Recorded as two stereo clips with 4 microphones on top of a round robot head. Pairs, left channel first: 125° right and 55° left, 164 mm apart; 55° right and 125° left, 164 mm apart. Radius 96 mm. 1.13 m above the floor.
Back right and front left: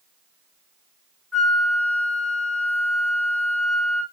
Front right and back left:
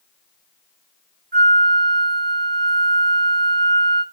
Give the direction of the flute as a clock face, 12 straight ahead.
7 o'clock.